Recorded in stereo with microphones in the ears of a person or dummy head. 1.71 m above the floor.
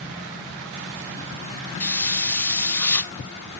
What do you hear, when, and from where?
1.8 s a hiss: 10° left (ahead or behind), 0.7 m